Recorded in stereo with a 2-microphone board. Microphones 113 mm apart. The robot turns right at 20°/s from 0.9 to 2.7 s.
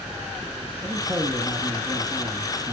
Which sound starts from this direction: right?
A man speaking, at 0.8 s.